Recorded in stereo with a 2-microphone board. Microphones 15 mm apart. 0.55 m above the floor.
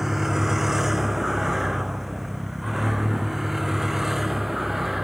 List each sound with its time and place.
0.0 s a vehicle: 30° right (ahead or behind); by 5.0 s 20° right (ahead or behind)